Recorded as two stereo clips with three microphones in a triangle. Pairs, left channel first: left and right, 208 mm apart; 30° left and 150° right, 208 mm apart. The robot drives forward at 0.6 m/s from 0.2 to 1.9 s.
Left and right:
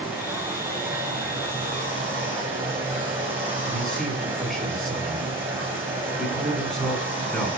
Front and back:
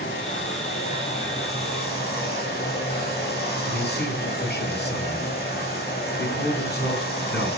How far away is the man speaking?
About 3.5 m.